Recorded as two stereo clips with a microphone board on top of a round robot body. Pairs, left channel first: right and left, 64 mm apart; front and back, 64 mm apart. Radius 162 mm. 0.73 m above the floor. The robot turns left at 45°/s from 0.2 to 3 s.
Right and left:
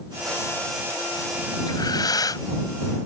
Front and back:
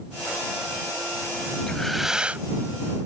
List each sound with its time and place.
1.7 s breathing: 80° right; by 2.5 s 115° right